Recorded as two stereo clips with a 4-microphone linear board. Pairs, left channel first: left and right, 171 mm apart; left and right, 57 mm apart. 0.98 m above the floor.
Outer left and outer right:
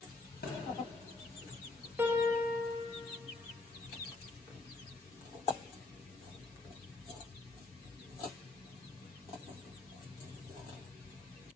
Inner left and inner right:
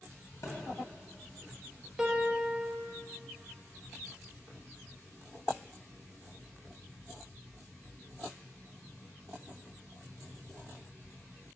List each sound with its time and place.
0.4 s a thud: 70° left (ahead or behind), 2 m
2.0 s a piano: 15° right (ahead or behind), 0.9 m